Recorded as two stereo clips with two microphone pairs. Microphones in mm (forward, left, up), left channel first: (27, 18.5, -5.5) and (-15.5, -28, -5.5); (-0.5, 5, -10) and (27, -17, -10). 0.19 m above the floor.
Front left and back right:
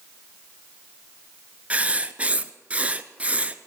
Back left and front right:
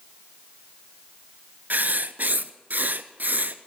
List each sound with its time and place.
1.7 s writing: 65° right, 0.6 m